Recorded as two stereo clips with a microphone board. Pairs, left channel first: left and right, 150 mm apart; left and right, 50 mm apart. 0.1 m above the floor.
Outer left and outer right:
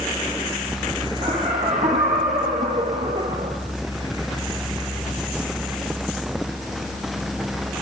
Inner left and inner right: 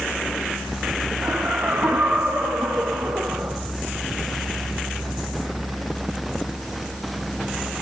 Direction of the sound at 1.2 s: 45° right (ahead or behind).